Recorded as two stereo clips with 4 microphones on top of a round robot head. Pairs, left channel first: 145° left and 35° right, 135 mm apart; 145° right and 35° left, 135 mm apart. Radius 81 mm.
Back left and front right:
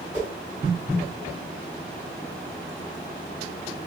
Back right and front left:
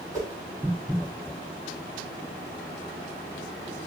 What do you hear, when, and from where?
0.1 s a whoosh: 25° right, 2 m